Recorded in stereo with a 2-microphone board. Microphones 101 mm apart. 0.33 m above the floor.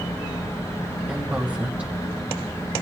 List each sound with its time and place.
1.1 s a woman speaking: 10° right (ahead or behind), 1.9 m